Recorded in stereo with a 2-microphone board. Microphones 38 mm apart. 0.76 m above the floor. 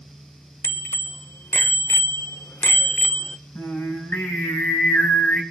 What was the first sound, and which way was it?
A bicycle bell, 70° left (ahead or behind).